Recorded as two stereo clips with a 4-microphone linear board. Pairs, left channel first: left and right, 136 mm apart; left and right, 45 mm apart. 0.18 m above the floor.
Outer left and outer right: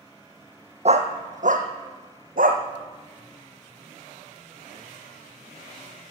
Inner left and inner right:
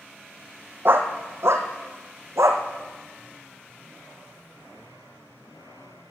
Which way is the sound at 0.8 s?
55° right (ahead or behind).